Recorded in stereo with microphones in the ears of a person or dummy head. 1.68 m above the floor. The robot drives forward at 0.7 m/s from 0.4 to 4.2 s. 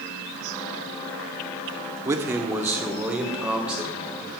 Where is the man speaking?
20° right (ahead or behind), 0.9 m; by 4.3 s 5° right (ahead or behind), 2.5 m.